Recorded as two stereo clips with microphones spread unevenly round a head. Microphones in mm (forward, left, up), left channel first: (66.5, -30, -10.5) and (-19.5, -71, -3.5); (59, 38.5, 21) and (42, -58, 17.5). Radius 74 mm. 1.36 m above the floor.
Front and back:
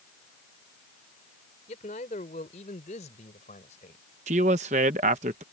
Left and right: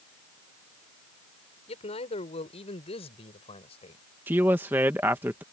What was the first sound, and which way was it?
A man speaking, 65° left.